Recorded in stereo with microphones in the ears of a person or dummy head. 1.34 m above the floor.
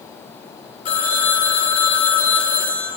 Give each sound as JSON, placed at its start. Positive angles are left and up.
{"t": 0.8, "sound": "a phone ringing", "side_deg": 40, "distance_m": 1.8}